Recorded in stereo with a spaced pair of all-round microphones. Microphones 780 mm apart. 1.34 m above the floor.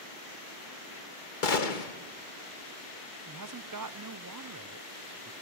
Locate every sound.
1.4 s a gunshot: 85° left, 1.5 m
3.2 s a man speaking: 30° right (ahead or behind), 0.5 m